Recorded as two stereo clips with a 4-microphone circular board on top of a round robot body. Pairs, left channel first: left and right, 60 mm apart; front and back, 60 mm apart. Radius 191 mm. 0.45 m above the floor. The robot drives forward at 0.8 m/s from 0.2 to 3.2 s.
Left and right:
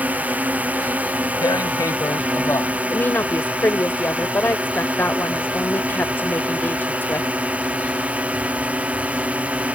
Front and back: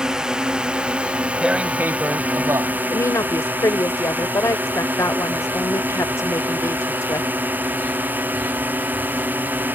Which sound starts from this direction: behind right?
A drone, at 0.0 s.